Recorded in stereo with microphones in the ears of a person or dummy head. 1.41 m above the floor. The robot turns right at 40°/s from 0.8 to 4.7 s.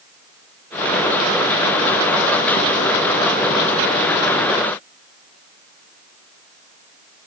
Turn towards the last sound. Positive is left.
No sound to turn to.